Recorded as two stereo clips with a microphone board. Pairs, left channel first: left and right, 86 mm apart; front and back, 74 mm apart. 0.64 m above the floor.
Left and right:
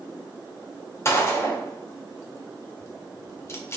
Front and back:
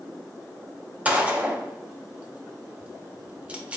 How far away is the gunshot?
About 0.5 m.